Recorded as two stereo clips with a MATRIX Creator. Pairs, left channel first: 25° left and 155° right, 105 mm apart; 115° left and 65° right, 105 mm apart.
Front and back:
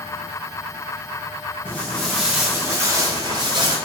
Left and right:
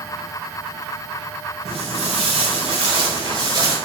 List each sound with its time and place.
1.6 s footsteps: 50° right, 0.8 m; by 3.8 s 115° right, 1.1 m